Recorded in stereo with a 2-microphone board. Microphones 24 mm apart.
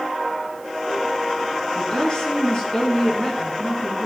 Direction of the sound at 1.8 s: 35° left (ahead or behind).